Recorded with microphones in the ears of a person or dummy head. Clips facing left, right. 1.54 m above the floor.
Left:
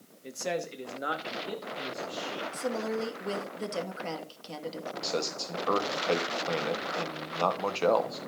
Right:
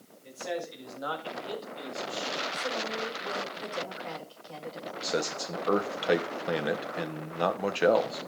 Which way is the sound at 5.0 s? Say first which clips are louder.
Right 3 dB; 15° right (ahead or behind).